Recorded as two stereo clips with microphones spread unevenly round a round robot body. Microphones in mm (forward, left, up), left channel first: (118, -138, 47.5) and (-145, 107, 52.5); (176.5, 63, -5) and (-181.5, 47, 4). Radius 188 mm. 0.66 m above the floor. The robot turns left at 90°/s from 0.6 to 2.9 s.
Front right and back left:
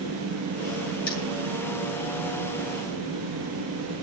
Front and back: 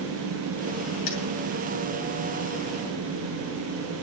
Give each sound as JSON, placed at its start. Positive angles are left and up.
{"t": 1.1, "sound": "cutlery clinking", "azimuth_deg": 25, "distance_m": 5.5}